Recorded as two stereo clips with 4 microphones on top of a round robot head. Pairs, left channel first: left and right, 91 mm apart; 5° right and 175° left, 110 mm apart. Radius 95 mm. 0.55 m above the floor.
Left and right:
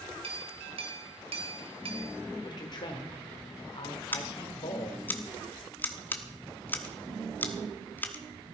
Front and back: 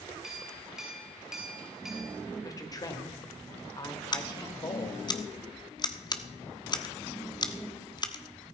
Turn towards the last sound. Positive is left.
turn(degrees=30)